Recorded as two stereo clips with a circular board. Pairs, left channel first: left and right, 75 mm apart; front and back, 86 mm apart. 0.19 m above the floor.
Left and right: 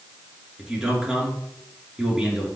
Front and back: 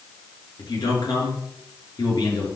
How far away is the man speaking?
About 3 m.